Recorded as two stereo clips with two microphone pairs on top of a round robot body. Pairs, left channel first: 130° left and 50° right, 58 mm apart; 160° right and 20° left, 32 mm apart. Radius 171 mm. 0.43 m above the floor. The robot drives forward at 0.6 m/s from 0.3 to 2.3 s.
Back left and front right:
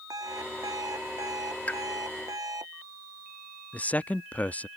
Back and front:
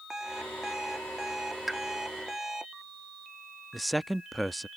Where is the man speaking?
110° left.